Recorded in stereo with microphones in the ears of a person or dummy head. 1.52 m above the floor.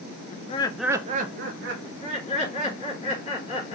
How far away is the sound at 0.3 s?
About 0.7 m.